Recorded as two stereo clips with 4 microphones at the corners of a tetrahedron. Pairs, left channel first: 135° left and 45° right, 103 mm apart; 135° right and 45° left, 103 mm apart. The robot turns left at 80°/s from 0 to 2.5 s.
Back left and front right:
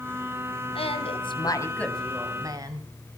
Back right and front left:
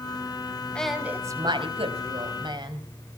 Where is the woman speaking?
145° left, 3.5 m; by 2.9 s 5° left, 3.5 m.